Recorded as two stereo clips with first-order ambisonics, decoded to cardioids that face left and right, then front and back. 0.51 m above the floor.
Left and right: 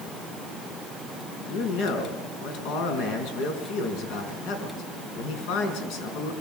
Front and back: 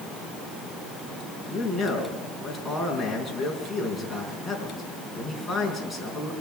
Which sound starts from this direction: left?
A man speaking, at 1.5 s.